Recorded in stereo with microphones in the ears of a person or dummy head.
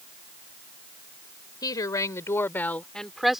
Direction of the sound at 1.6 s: 25° left (ahead or behind).